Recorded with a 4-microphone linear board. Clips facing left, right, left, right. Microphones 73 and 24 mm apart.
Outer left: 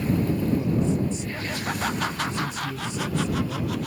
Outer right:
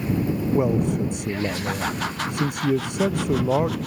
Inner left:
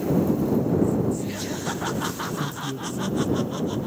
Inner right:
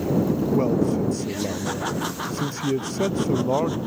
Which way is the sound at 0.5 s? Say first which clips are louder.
Outer right 3 dB, inner right 1 dB; 65° right (ahead or behind).